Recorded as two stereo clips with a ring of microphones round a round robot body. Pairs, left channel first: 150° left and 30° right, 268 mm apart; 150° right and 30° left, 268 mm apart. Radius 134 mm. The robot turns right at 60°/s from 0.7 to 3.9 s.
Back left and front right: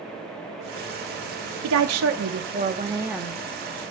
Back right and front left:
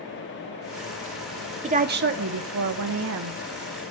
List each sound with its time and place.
1.6 s a woman speaking: 35° right, 1.2 m; by 3.4 s 70° left, 1.2 m